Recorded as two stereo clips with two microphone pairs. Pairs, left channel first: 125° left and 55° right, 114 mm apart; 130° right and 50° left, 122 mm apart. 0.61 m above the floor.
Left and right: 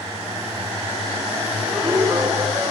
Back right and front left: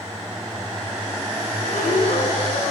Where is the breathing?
120° right, 6.5 m.